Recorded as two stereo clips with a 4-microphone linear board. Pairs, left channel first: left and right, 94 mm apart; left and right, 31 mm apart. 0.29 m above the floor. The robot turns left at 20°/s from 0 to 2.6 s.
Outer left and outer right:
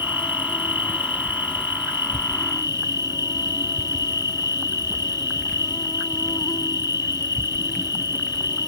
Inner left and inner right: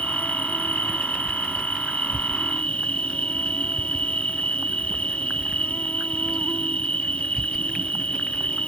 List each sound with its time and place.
0.0 s an insect: 105° left; by 8.7 s 55° left